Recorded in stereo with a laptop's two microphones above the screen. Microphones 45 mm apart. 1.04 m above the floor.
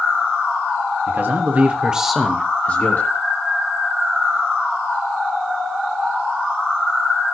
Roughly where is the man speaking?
Right.